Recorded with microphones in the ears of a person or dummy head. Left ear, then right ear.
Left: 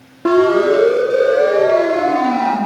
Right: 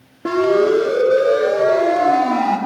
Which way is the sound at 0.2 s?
25° left (ahead or behind).